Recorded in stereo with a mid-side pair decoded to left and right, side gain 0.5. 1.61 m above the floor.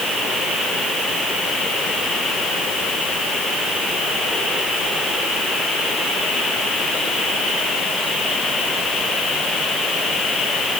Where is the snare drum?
No snare drum in this recording.